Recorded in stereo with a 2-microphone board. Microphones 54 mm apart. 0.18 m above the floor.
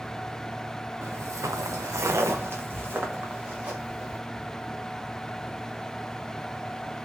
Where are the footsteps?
50° right (ahead or behind), 0.6 m; by 4.2 s 25° right (ahead or behind), 2.0 m.